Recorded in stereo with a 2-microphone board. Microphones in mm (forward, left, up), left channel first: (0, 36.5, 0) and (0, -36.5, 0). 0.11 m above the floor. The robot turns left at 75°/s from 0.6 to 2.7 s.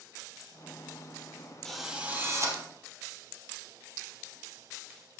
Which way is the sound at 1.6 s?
5° left.